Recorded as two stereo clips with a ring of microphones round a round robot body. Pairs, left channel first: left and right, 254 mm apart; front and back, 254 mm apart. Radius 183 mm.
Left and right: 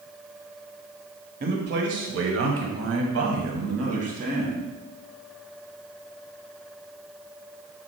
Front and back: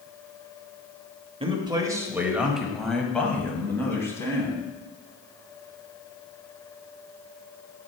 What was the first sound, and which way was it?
A man speaking, 125° right.